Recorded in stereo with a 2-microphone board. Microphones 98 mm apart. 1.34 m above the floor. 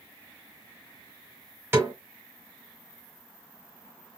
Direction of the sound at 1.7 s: 25° right (ahead or behind).